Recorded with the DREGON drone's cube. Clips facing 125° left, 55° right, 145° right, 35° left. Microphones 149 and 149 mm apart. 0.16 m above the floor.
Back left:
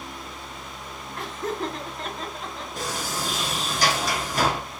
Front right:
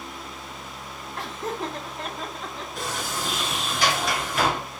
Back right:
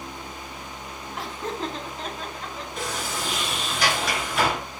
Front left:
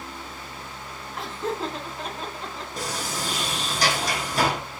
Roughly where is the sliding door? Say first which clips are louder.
Back left 1 dB, even; left.